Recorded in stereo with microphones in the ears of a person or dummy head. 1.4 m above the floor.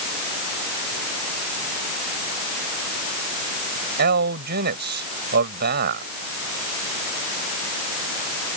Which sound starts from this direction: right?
A man speaking, at 4.0 s.